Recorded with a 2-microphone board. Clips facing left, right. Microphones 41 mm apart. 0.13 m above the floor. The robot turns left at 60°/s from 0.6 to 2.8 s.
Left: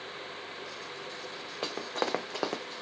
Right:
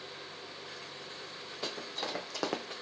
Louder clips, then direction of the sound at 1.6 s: Left 6 dB; 45° left (ahead or behind).